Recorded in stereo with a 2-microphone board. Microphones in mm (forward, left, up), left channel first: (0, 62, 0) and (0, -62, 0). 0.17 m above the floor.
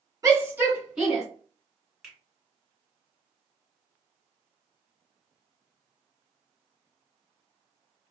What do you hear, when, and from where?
0.2 s a shout: 25° right (ahead or behind), 1.6 m; by 1.2 s centre (ahead or behind), 1.8 m
2.0 s a finger snap: 5° right (ahead or behind), 1.9 m